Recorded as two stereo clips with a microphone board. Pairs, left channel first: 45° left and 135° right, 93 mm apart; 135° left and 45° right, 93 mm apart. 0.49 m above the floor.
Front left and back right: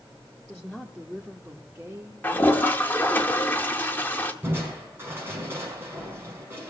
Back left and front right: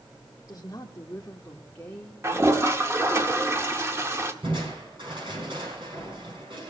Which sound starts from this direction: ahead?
A toilet flushing, at 2.2 s.